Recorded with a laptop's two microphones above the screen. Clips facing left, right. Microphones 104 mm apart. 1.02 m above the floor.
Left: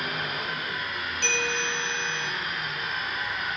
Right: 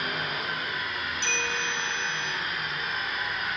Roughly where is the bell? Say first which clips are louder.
Left 4 dB; left.